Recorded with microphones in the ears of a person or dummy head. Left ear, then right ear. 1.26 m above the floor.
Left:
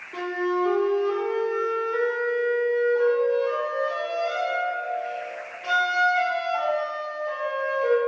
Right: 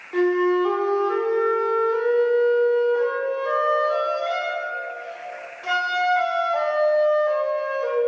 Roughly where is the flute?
Right.